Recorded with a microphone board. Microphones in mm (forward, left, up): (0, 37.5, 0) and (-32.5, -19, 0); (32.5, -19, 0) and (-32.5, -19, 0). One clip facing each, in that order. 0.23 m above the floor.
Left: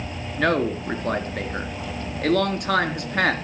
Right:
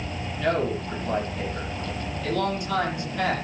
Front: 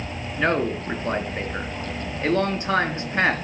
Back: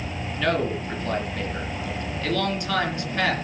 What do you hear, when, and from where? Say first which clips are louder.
0.4 s a man speaking: left 3 dB, front 2 dB; 55° left, 3 m